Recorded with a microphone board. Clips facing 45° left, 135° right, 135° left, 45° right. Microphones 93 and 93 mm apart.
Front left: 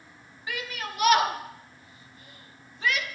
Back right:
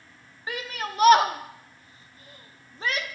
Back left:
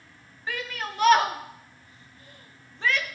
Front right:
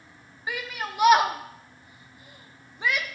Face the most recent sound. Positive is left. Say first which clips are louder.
# back right 2 dB, even
turn(degrees=-115)